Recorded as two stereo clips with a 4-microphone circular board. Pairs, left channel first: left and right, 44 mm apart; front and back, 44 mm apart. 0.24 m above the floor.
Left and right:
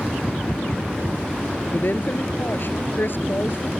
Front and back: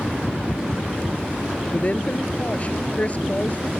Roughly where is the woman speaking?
Ahead left.